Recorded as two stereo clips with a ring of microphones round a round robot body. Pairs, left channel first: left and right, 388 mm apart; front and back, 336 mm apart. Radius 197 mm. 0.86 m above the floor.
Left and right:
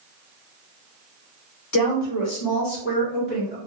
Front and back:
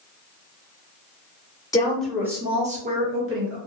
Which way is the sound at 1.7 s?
75° left.